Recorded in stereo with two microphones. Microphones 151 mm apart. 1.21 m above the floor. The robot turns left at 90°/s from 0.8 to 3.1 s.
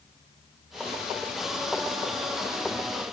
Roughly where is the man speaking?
I don't hear a man speaking.